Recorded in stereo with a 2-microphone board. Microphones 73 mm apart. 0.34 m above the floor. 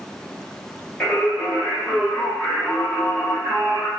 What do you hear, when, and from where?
1.0 s singing: 15° left (ahead or behind), 1.4 m